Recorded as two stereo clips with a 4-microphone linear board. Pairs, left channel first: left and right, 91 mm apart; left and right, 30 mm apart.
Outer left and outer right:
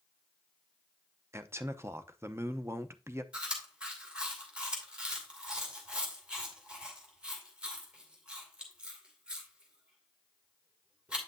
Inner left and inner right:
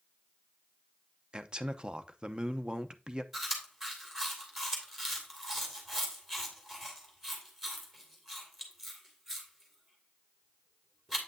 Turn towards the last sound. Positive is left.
turn(degrees=-10)  # may be behind; listen again after turning